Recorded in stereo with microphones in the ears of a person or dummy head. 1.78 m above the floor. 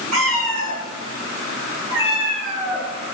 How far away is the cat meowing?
About 3 m.